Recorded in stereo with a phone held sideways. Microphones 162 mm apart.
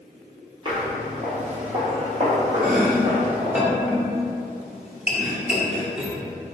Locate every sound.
0.7 s footsteps: 30° right (ahead or behind), 1.9 m; by 3.6 s 50° right (ahead or behind), 2.5 m
2.6 s chopping: 5° right (ahead or behind), 0.9 m